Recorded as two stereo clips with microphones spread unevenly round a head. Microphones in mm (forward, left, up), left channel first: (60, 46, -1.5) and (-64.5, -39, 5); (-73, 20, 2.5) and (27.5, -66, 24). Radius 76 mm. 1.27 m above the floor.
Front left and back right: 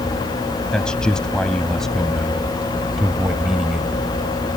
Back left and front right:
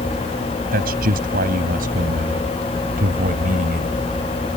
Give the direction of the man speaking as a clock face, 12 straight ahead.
2 o'clock.